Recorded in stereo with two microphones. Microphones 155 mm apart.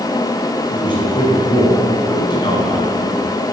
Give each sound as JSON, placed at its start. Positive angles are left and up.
{"t": 0.7, "sound": "a man speaking", "side_deg": 30, "distance_m": 6.0}